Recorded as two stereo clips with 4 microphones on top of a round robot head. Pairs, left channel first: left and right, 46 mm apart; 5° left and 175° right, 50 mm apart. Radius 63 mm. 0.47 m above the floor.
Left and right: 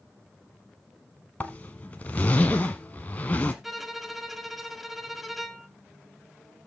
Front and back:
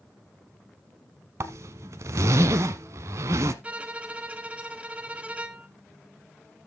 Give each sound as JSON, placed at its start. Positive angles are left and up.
{"t": 1.4, "sound": "a zipper", "azimuth_deg": 160, "distance_m": 0.6}
{"t": 3.6, "sound": "a violin", "azimuth_deg": -170, "distance_m": 1.2}